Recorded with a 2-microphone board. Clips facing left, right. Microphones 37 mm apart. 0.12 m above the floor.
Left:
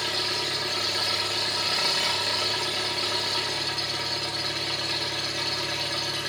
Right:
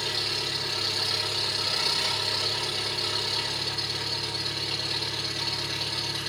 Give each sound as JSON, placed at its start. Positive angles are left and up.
{"t": 0.0, "sound": "an engine running", "side_deg": 70, "distance_m": 6.5}